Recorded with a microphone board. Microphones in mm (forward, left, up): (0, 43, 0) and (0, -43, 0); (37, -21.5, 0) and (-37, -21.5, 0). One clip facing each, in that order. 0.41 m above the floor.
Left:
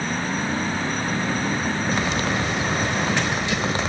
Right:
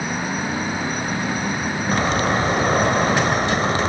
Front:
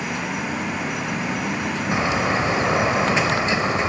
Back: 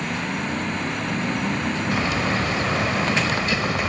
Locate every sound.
1.9 s a bird: 60° right